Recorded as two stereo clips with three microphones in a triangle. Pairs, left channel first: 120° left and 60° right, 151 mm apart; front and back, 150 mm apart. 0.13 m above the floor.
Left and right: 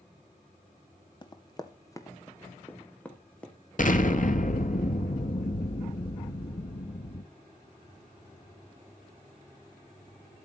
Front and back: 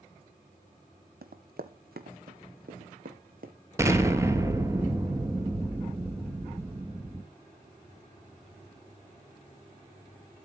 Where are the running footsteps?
Straight behind, 1.9 m; by 3.5 s 155° right, 3 m.